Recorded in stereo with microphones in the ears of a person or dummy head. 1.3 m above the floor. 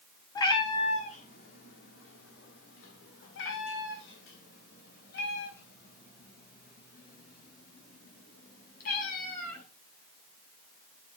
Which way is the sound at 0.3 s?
25° left (ahead or behind).